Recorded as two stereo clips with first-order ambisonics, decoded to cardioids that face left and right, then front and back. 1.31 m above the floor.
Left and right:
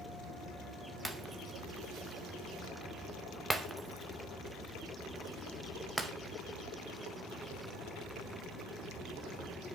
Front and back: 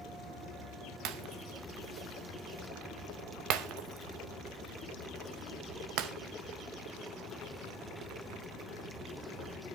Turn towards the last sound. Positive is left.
turn(degrees=-170)